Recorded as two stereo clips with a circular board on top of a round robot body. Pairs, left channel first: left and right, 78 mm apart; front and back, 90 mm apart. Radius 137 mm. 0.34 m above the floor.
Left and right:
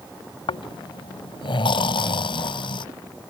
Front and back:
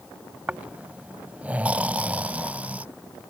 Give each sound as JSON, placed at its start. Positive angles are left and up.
{"t": 0.5, "sound": "snoring", "azimuth_deg": 105}